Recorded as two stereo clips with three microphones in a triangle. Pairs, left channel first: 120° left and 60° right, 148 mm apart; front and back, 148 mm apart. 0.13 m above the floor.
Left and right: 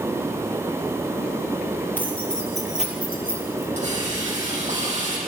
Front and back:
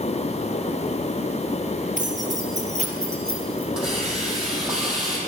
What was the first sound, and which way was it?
Keys jangling, 165° right.